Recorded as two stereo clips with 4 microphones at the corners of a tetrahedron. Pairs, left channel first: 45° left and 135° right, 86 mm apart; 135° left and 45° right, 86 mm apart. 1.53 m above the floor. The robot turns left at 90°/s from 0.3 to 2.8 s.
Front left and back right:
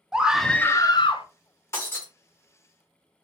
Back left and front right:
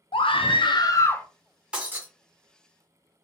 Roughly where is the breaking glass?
Ahead left.